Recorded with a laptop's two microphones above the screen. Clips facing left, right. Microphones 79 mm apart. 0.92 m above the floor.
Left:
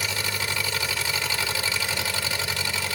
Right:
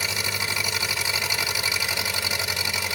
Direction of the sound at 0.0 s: 15° right (ahead or behind).